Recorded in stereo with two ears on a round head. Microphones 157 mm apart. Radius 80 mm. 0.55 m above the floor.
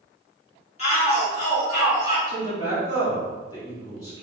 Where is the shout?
35° left (ahead or behind), 1.4 m.